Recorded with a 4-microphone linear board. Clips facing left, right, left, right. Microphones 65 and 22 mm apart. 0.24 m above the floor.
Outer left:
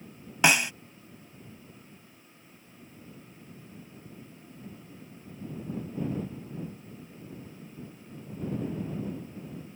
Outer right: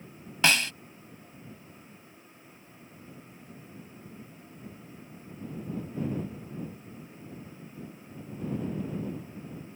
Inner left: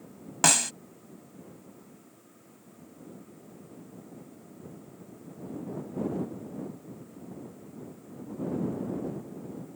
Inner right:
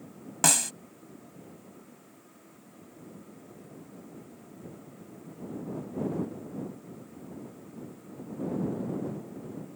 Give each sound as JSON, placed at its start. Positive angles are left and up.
{"t": 0.4, "sound": "a snare drum", "side_deg": 20}